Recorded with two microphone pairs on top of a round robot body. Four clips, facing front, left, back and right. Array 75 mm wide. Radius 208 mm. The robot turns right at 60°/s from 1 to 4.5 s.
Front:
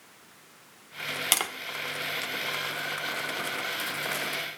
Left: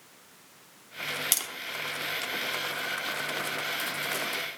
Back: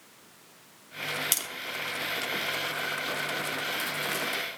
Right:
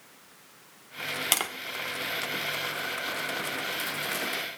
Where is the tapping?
50° right, 0.8 m; by 1.5 s 40° right, 0.8 m.